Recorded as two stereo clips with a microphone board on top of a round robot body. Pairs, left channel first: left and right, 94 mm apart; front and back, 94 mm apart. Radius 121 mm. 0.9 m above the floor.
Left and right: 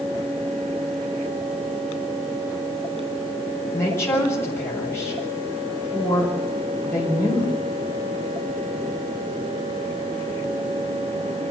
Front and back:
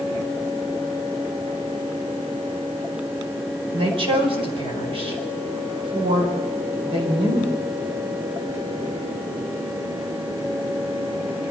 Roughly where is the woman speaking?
Behind left.